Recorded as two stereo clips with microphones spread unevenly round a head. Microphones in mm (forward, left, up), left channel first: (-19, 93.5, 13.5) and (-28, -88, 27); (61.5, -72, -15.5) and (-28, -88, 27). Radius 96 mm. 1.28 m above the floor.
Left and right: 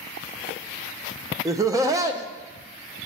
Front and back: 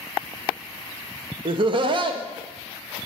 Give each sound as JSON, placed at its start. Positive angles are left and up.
{"t": 1.4, "sound": "laughter", "azimuth_deg": -165, "distance_m": 0.6}